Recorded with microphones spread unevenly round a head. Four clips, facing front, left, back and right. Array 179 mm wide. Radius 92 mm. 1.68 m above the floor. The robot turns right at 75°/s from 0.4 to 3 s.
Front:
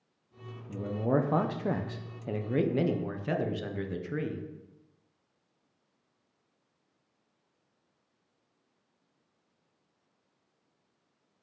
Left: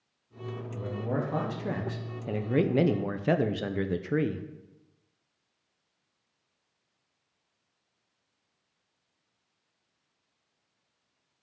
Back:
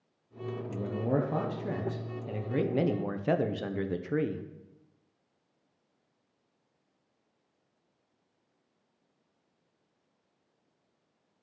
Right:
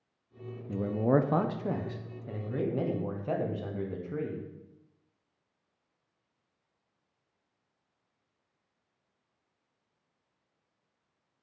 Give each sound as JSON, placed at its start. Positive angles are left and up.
{"t": 0.7, "sound": "a man speaking", "azimuth_deg": -80, "distance_m": 0.7}